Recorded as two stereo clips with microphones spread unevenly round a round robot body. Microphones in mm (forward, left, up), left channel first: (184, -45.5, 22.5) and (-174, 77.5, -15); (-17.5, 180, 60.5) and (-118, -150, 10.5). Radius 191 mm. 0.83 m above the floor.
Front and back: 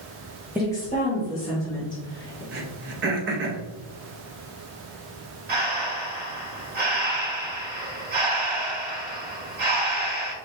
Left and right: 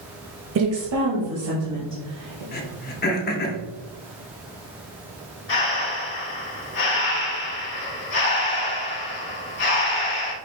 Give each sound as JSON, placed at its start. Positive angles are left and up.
{"t": 0.6, "sound": "a woman speaking", "azimuth_deg": -120, "distance_m": 0.6}
{"t": 2.5, "sound": "throat clearing", "azimuth_deg": 130, "distance_m": 0.7}
{"t": 5.5, "sound": "breathing", "azimuth_deg": 100, "distance_m": 1.1}